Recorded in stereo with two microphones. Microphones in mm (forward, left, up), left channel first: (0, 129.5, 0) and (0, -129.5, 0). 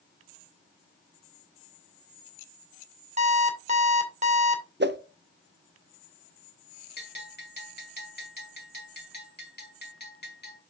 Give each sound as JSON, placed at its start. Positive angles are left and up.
{"t": 3.2, "sound": "an alarm clock", "side_deg": -25, "distance_m": 1.7}
{"t": 4.8, "sound": "a whoosh", "side_deg": -45, "distance_m": 0.5}
{"t": 7.0, "sound": "a bell", "side_deg": 45, "distance_m": 1.9}